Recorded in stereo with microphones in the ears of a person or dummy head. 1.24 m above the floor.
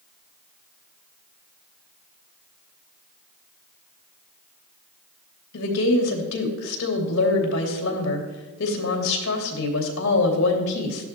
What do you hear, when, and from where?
5.5 s a woman speaking: 80° left, 3 m